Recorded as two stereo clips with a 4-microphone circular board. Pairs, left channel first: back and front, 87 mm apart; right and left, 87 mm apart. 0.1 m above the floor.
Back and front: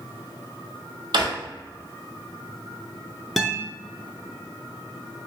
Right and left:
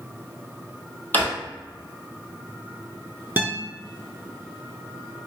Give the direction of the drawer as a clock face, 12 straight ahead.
1 o'clock.